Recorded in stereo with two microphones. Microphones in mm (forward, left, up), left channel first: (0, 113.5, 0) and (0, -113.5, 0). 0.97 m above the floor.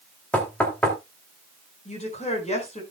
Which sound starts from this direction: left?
A woman speaking, at 1.9 s.